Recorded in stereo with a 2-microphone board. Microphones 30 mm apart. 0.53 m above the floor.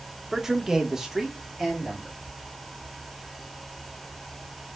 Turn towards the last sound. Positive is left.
turn(degrees=-10)  # may be behind; listen again after turning